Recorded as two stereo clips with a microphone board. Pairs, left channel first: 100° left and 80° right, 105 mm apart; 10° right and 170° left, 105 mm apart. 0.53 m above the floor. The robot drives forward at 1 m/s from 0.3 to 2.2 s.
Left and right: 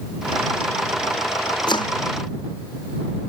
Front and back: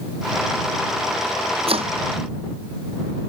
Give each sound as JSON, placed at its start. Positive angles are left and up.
{"t": 1.7, "sound": "chopping", "azimuth_deg": 145}